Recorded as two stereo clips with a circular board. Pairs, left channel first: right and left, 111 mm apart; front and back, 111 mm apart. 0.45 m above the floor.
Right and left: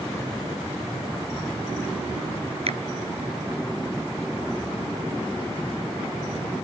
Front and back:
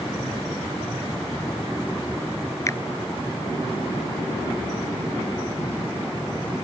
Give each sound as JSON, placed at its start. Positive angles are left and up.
{"t": 2.7, "sound": "a finger snap", "azimuth_deg": 65}